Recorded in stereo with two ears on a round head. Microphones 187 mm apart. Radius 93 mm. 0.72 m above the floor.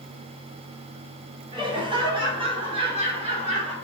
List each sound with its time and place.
1.5 s laughter: 25° right (ahead or behind), 4.5 m; by 3.7 s 35° right (ahead or behind), 3 m